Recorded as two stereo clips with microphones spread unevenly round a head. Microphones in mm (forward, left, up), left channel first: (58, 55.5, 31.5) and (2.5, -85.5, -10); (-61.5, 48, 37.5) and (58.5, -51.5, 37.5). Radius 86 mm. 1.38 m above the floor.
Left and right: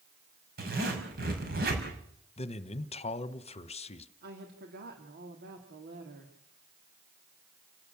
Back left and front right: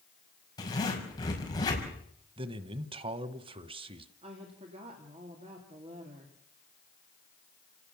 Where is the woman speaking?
95° right, 3 m.